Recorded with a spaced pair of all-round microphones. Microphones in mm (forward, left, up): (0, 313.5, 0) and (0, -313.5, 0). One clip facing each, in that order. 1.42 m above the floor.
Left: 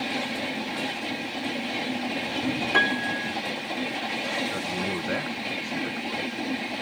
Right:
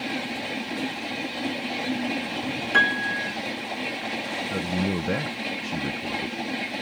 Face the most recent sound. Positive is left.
turn(degrees=-55)  # may be behind; listen again after turning